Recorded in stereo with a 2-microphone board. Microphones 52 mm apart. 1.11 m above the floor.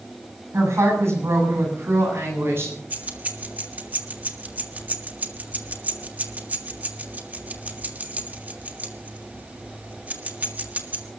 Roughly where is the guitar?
No guitar in this recording.